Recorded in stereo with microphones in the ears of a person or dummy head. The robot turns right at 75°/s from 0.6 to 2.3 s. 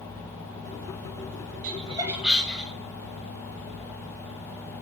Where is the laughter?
50° right (ahead or behind), 1.4 m; by 2.7 s centre (ahead or behind), 1.4 m.